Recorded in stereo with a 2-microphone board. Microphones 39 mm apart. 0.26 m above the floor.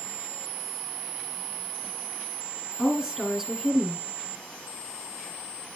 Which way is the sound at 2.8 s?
10° right (ahead or behind).